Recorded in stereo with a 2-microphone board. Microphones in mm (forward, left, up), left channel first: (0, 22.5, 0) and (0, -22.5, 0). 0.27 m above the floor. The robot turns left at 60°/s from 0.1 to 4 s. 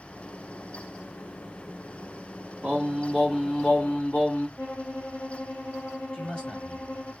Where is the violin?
30° left (ahead or behind), 1.0 m.